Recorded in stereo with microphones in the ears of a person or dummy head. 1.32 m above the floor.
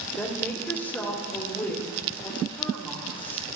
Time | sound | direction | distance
0.2 | a woman speaking | 10° left (ahead or behind) | 1.7 m